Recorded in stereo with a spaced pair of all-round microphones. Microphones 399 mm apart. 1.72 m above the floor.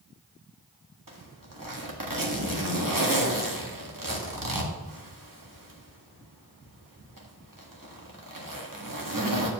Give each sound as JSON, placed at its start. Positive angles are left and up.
{"t": 1.1, "sound": "a zipper", "side_deg": -60, "distance_m": 1.8}